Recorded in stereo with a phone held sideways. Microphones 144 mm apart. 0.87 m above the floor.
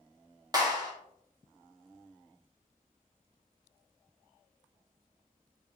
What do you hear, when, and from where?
0.5 s a clap: 25° right (ahead or behind), 2 m